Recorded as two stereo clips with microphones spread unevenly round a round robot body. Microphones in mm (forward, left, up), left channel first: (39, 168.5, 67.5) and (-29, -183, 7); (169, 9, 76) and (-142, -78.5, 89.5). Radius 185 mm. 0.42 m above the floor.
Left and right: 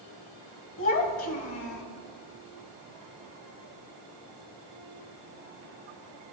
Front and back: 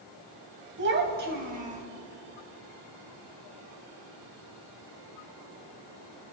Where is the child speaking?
140° left, 2.5 m; by 1.8 s 125° left, 2 m.